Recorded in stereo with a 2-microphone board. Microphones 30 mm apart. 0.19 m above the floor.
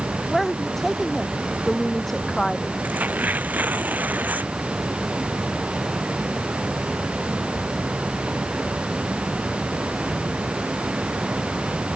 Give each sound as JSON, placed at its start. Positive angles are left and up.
{"t": 0.3, "sound": "a woman speaking", "side_deg": 10}
{"t": 2.8, "sound": "tearing paper", "side_deg": -70}